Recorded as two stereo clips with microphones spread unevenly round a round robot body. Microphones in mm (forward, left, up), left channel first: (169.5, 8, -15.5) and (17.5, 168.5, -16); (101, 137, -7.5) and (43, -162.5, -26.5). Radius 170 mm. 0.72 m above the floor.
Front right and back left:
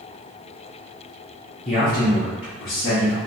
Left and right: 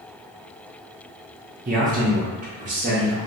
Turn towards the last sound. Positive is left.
turn(degrees=-35)